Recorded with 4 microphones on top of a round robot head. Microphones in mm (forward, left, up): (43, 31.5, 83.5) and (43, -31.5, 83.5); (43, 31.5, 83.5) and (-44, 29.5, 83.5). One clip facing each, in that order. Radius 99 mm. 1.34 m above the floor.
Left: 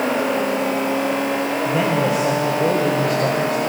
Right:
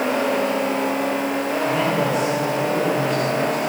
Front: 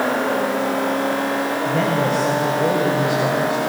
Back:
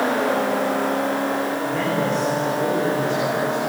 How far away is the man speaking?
About 6 m.